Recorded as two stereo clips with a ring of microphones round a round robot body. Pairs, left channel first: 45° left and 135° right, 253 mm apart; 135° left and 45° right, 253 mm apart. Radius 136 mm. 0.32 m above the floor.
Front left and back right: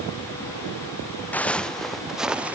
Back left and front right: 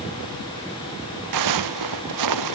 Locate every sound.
1.3 s footsteps: 40° right; by 2.6 s 50° right